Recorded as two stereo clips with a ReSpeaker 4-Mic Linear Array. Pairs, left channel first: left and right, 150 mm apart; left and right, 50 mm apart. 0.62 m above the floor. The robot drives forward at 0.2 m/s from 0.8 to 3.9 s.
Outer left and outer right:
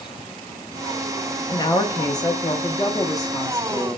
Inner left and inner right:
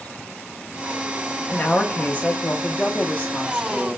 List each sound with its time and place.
1.5 s a woman speaking: 25° left (ahead or behind), 0.6 m; by 4.0 s 20° left (ahead or behind), 0.8 m